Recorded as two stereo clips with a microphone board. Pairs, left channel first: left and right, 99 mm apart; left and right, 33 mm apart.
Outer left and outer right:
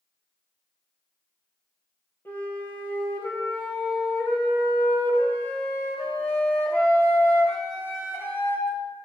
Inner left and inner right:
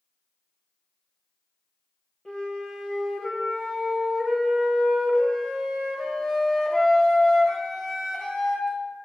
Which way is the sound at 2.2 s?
25° left (ahead or behind).